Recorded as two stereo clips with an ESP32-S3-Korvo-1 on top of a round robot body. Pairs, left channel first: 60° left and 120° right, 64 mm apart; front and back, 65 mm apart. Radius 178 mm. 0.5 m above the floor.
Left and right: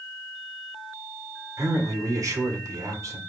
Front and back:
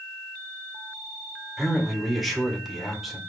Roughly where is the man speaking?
Right.